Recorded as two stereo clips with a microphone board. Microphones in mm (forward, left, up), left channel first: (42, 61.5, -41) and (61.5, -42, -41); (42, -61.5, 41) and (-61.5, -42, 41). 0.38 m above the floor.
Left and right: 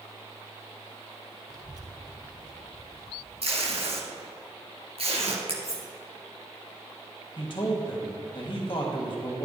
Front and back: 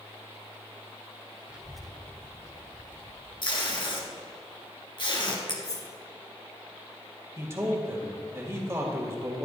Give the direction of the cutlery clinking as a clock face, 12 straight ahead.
11 o'clock.